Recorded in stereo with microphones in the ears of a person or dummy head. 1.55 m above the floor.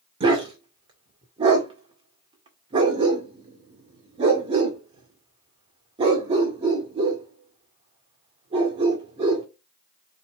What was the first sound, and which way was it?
A dog barking, 25° right (ahead or behind).